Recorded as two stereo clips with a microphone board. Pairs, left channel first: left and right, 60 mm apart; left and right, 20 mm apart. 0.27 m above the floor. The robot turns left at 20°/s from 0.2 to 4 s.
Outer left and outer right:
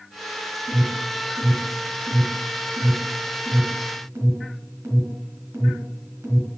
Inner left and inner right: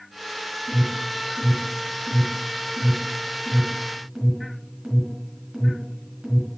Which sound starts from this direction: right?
An alarm, at 0.7 s.